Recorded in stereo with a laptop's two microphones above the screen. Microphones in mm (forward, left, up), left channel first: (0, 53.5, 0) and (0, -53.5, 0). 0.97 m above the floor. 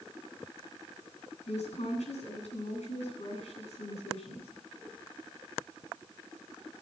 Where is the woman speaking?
80° left, 9.5 m.